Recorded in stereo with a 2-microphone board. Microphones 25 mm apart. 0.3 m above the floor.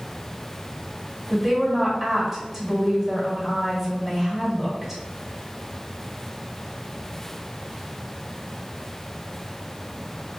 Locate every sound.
1.3 s a woman speaking: 10° right (ahead or behind), 1.6 m